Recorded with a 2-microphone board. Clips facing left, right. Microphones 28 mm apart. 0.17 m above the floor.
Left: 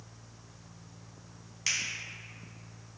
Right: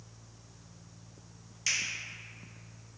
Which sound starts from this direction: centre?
A finger snap, at 1.7 s.